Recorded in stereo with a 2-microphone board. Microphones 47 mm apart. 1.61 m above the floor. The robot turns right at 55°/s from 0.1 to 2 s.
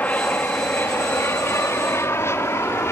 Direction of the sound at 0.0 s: 40° left (ahead or behind).